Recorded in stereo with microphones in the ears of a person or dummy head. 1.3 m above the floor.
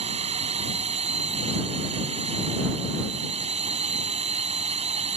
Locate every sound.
0.0 s a drone: 35° right (ahead or behind)